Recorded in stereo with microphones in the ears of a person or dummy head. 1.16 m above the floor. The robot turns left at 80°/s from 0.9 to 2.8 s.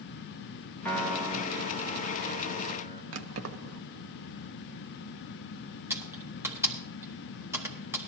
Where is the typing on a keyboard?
10° right (ahead or behind), 1.2 m.